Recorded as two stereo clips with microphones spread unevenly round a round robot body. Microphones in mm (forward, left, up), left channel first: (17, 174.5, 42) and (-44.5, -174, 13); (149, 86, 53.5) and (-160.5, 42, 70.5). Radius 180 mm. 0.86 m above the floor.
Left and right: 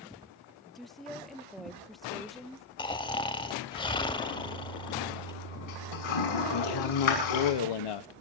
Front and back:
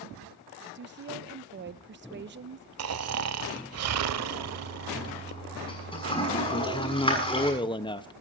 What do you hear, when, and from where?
0.8 s a woman speaking: straight behind, 0.8 m
2.8 s snoring: 155° left, 1.2 m
4.3 s a toilet flushing: 80° left, 6.5 m
6.5 s a man speaking: 80° left, 1.0 m